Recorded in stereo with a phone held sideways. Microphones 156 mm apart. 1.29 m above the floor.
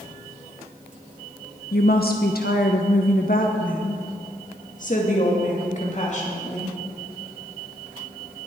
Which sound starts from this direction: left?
A woman speaking, at 1.7 s.